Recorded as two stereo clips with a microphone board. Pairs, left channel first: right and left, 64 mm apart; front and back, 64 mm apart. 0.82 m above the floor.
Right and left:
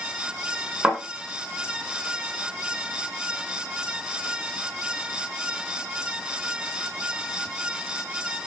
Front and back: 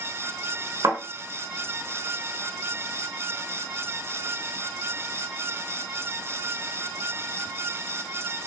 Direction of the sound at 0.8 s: 150° left.